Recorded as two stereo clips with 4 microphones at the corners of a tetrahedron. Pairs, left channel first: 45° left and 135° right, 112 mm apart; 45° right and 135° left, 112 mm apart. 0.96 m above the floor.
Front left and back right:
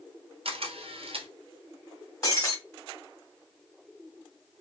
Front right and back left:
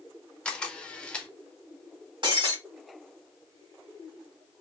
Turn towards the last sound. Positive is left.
turn(degrees=100)